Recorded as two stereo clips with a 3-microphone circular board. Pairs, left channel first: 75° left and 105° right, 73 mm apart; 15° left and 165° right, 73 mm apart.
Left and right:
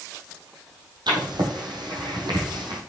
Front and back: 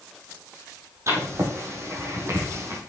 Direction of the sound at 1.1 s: 115° right.